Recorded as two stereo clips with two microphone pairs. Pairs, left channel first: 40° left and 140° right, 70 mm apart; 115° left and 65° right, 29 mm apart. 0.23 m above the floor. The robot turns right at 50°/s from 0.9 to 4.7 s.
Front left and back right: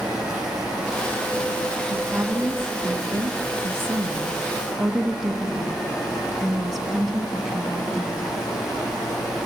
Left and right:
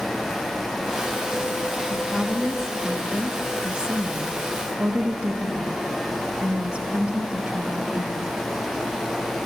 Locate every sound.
0.0 s running water: 160° right, 8 m; by 9.4 s 30° left, 8 m
1.9 s a woman speaking: 170° left, 1.9 m; by 8.3 s 50° right, 1.9 m